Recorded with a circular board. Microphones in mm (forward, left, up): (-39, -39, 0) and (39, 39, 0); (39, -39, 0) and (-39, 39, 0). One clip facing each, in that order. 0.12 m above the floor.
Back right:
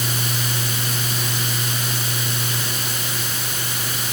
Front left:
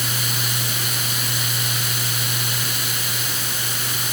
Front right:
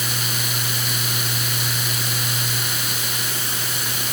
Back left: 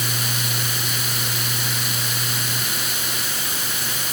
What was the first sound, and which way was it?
Only background noise.